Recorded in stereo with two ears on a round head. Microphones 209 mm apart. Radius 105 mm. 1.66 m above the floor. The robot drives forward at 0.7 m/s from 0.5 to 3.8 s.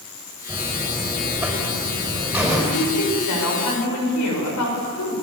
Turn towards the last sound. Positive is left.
turn(degrees=90)